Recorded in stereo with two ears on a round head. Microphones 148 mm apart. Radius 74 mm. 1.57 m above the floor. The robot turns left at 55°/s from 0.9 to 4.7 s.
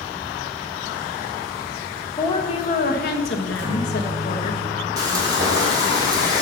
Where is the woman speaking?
165° left, 1.2 m; by 4.5 s 35° left, 1.2 m.